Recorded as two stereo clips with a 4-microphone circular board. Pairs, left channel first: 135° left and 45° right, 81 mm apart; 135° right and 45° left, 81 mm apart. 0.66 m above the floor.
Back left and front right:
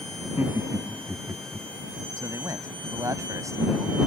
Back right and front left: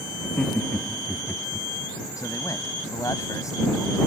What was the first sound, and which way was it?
Laughter, 65° right.